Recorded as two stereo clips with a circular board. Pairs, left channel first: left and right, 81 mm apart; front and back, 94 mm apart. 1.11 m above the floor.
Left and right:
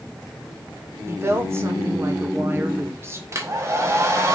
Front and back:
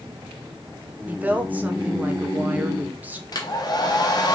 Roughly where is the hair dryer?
Ahead right.